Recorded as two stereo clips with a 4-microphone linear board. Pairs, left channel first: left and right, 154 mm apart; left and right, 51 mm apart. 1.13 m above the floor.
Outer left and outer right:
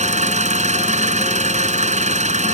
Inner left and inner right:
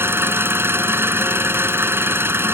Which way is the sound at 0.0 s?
50° right (ahead or behind).